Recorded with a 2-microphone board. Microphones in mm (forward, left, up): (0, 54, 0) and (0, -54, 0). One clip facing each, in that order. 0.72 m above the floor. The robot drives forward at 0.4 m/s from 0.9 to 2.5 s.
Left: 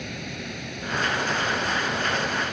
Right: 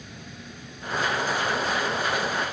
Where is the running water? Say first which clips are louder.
Left 8 dB; 80° left; by 2.5 s 75° left (ahead or behind).